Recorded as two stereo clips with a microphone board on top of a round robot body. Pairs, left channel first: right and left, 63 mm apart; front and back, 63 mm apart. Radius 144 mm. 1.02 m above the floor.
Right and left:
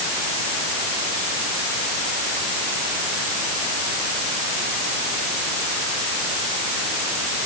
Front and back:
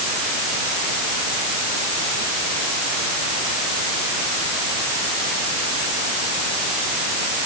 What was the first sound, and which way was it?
Only background noise.